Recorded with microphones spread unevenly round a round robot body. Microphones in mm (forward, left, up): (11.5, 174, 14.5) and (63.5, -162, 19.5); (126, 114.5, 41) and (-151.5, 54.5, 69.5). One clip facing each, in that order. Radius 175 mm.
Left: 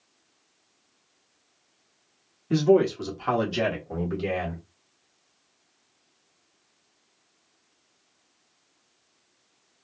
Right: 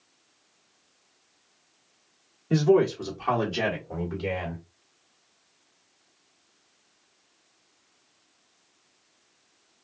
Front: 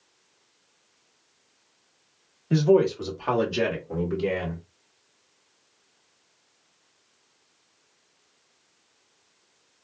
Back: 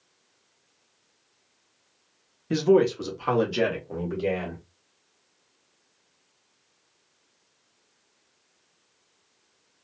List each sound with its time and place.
2.5 s a man speaking: 165° left, 1.2 m; by 4.6 s 75° left, 1.9 m